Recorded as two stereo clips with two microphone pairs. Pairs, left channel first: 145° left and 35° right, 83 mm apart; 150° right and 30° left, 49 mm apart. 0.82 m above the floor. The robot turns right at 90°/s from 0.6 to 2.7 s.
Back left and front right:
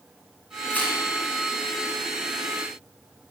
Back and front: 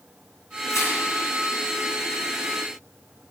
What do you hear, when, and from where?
0.7 s tearing paper: 150° right, 4 m; by 1.0 s 125° right, 4 m